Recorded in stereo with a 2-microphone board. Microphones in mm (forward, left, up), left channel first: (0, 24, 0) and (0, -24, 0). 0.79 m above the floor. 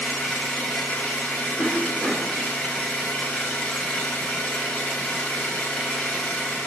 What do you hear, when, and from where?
0.0 s an engine running: 25° left (ahead or behind), 1.7 m
1.6 s a cough: 20° right (ahead or behind), 3 m